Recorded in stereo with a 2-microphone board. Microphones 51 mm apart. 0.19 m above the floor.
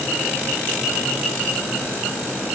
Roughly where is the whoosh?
No whoosh in this recording.